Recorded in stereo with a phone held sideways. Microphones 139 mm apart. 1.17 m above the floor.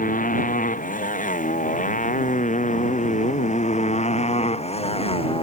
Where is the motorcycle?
75° left (ahead or behind); by 5.4 s 40° left (ahead or behind).